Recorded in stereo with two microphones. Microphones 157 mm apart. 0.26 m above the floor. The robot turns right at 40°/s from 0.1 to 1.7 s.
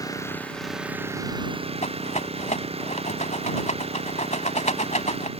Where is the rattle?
50° left (ahead or behind).